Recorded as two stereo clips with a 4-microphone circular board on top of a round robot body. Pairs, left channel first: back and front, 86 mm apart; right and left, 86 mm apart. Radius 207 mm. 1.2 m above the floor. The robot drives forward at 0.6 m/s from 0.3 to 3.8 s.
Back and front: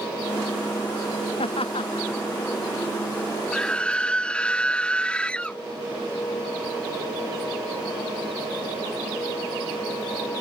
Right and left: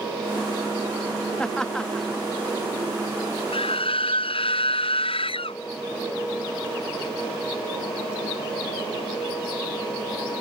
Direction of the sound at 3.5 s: 95° right.